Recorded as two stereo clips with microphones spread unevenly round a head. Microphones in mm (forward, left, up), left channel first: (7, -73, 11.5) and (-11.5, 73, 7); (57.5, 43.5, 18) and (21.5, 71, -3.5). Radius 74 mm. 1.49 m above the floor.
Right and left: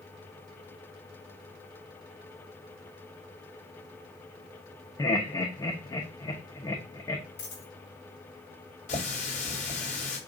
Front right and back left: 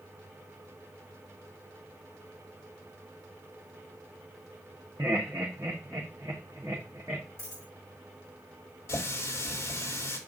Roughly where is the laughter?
Behind right.